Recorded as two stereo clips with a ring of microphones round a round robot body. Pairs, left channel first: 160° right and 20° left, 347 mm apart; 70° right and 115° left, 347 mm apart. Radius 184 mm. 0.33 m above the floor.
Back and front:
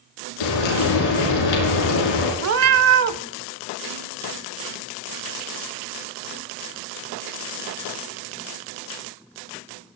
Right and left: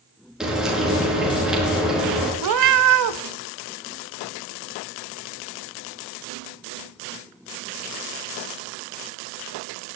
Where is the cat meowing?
70° left, 0.6 m.